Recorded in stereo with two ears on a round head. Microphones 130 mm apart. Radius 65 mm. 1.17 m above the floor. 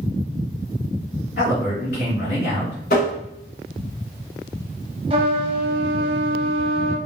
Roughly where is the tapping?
Left.